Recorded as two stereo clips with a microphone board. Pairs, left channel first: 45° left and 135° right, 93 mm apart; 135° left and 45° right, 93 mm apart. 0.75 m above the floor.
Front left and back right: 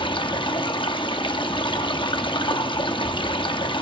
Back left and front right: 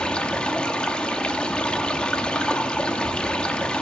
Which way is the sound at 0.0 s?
55° left.